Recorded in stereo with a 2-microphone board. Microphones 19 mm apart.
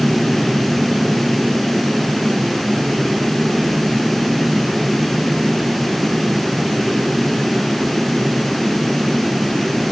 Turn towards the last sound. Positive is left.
No sound to turn to.